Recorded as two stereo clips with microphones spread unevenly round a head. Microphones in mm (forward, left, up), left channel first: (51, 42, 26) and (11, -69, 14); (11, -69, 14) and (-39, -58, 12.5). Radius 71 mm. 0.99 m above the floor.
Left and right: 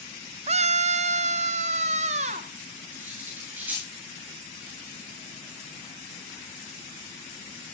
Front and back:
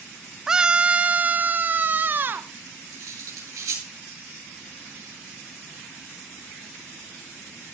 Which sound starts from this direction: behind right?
A scream, at 0.5 s.